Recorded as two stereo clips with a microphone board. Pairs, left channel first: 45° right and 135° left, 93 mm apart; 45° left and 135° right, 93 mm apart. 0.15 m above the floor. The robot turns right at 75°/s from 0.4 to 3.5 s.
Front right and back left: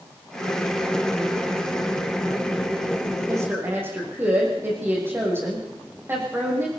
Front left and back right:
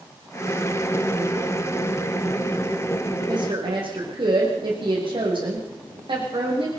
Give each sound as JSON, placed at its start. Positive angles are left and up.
{"t": 3.3, "sound": "a woman speaking", "azimuth_deg": -175, "distance_m": 8.5}